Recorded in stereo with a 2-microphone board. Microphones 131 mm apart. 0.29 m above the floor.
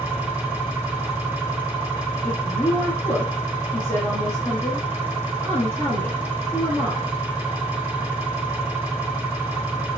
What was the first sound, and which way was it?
An engine running, 10° right (ahead or behind).